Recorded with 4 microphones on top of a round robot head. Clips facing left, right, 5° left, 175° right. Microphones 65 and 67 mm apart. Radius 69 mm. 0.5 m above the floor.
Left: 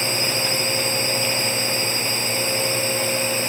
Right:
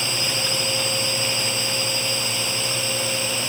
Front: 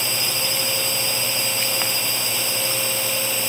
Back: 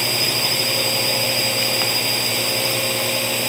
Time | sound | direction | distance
0.0 | a drone | 150° left | ?